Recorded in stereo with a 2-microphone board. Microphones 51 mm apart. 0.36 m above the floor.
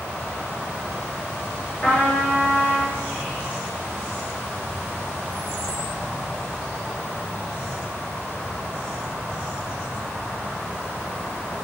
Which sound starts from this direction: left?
A trumpet, at 1.8 s.